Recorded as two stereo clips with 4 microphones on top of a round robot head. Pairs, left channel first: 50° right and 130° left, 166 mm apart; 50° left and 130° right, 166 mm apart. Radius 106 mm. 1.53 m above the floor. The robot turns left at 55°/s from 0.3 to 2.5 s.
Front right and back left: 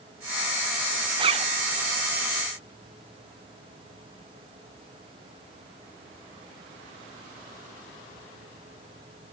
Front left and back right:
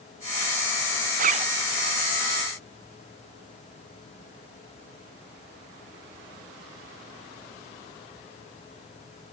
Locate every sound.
1.2 s a zipper: 170° right, 0.5 m; by 1.5 s 175° left, 0.5 m